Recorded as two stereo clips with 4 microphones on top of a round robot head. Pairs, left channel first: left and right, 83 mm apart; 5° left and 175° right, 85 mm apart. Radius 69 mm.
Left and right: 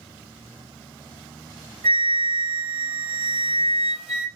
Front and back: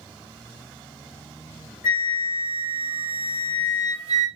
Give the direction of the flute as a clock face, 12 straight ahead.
3 o'clock.